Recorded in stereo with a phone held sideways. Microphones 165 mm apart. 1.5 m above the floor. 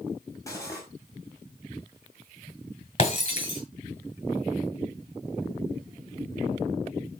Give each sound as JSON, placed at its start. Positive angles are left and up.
{"t": 0.5, "sound": "cutlery clinking", "side_deg": 20, "distance_m": 5.5}
{"t": 3.0, "sound": "breaking glass", "side_deg": 40, "distance_m": 7.5}